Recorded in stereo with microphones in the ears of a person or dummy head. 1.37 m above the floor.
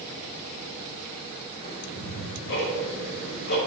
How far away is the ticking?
About 3.5 m.